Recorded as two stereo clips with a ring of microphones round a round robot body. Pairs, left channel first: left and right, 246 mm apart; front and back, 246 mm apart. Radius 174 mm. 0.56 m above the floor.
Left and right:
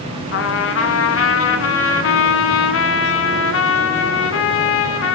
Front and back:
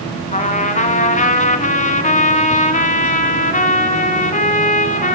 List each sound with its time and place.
0.3 s a trumpet: 60° left, 1.0 m